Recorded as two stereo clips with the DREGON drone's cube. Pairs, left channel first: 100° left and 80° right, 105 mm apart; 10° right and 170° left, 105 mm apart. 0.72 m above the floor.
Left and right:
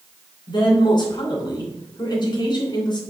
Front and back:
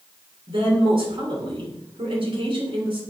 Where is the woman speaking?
140° left, 3 m.